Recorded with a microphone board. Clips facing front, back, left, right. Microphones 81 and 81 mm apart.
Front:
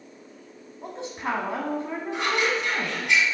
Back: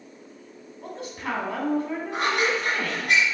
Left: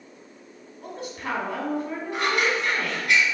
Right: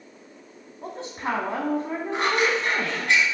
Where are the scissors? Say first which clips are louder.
Back 1 dB, right 1 dB; 145° right, 3.5 m.